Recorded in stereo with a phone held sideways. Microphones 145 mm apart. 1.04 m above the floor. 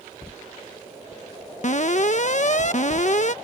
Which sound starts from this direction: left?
An alarm, at 1.6 s.